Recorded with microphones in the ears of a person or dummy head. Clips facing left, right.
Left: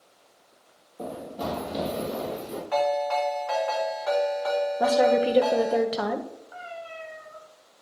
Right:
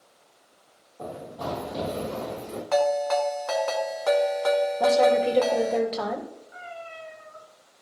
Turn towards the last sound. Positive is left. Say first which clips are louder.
# left 1 dB
turn(degrees=75)  # may be behind; listen again after turning